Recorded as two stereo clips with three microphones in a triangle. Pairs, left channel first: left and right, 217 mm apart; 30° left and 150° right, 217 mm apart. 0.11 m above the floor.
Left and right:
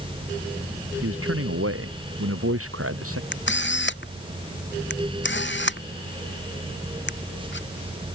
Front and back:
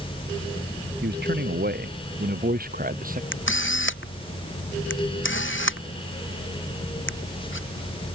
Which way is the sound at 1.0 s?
110° right.